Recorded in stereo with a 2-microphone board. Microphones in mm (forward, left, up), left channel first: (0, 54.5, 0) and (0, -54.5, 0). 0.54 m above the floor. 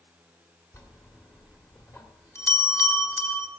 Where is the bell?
30° left (ahead or behind), 1.4 m.